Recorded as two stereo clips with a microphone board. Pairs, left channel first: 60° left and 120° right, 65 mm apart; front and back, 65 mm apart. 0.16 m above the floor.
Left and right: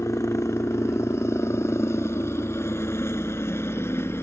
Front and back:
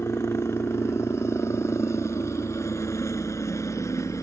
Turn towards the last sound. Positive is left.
turn(degrees=20)